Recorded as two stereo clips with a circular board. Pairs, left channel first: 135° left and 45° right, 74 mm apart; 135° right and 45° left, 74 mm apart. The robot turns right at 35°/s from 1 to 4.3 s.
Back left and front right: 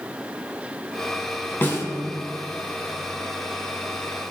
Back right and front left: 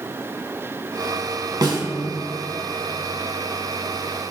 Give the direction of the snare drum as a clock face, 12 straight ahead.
9 o'clock.